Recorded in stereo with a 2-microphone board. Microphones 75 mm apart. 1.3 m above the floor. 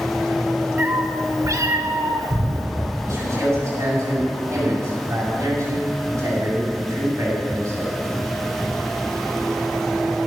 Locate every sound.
0.8 s a cat meowing: 35° right (ahead or behind), 1.5 m; by 2.7 s 50° right (ahead or behind), 1.9 m
3.0 s a man speaking: 40° right (ahead or behind), 7 m